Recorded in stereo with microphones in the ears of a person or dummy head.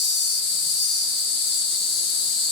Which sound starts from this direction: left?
An insect, at 0.0 s.